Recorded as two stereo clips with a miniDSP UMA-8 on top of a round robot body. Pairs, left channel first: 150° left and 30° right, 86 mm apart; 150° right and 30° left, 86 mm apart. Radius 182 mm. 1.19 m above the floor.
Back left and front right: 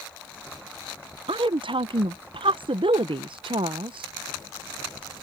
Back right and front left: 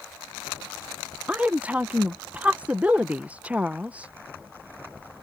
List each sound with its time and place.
1.3 s a woman speaking: 45° right